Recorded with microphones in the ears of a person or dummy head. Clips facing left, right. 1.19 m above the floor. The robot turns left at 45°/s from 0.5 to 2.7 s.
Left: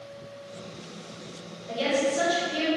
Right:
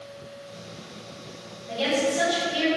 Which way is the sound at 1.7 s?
65° left.